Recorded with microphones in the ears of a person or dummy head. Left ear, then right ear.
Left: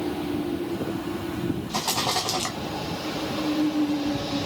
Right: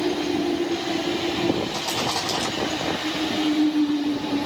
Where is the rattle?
Centre (ahead or behind), 1.4 m.